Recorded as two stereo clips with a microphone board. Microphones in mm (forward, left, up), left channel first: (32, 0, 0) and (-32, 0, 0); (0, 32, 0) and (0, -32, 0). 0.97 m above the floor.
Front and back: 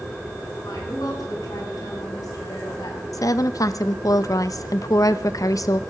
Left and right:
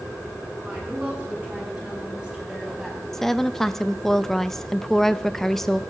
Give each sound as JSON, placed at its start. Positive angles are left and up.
{"t": 0.6, "sound": "a woman speaking", "azimuth_deg": -25, "distance_m": 7.5}
{"t": 3.1, "sound": "a woman speaking", "azimuth_deg": 5, "distance_m": 0.6}